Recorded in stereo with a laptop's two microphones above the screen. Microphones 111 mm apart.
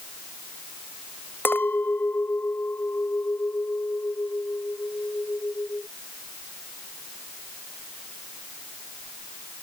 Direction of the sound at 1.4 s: 20° left (ahead or behind).